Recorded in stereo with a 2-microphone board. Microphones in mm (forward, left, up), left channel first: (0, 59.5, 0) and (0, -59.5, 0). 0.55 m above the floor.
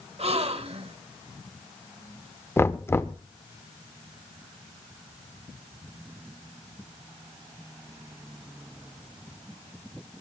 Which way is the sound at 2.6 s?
20° left (ahead or behind).